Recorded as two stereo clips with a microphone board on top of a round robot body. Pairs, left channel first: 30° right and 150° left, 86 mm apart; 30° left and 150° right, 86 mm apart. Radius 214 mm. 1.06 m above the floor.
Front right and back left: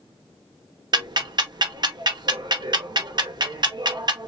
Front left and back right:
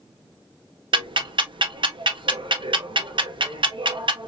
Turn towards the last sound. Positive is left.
turn(degrees=-175)